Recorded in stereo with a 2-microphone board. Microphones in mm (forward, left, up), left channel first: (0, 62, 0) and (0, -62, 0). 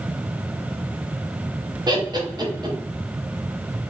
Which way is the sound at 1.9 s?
35° right (ahead or behind).